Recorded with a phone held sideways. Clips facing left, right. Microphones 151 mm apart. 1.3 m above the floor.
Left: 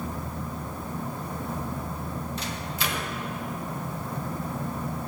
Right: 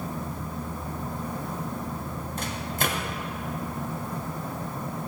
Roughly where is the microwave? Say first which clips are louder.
Right 2 dB; right.